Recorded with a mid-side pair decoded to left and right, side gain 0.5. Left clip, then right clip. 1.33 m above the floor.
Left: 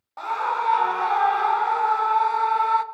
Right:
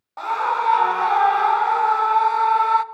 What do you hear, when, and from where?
0.2 s a scream: 15° right, 0.6 m